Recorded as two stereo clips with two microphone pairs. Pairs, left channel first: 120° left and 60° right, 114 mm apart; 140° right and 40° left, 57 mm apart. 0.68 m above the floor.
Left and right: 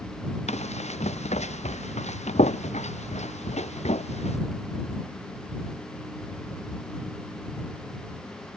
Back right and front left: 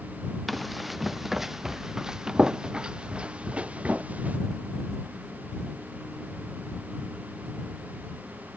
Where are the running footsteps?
135° left; by 4.4 s 105° left.